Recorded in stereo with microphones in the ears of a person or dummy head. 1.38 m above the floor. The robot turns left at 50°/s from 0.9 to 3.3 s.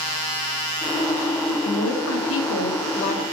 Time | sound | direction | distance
1.6 | a woman speaking | 115° left | 1.5 m